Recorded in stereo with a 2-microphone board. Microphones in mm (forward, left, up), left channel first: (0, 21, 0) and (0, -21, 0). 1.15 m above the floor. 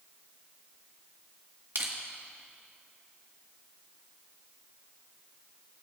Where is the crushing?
55° right (ahead or behind), 1.3 m.